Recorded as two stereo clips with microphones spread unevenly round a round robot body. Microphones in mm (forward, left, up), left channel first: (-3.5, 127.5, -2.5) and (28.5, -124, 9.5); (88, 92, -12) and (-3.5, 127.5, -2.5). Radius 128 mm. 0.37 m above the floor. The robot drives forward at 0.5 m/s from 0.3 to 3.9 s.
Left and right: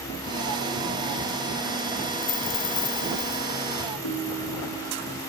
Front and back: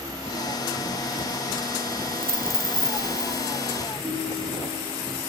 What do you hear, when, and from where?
2.2 s a dropped coin: 90° left, 1.3 m; by 3.5 s 115° left, 1.4 m
4.0 s a ringtone: 100° left, 4 m